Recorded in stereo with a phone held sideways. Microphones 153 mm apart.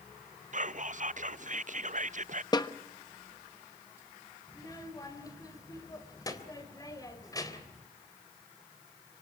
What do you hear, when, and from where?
0.5 s whispering: 55° right (ahead or behind), 0.6 m
2.5 s a snare drum: 25° left (ahead or behind), 1.2 m
4.5 s a child speaking: 25° left (ahead or behind), 3.5 m